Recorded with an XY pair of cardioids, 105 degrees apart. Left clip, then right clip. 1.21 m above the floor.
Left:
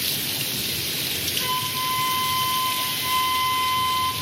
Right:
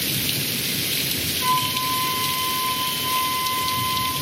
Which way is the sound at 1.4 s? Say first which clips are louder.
Right 7 dB; 50° left.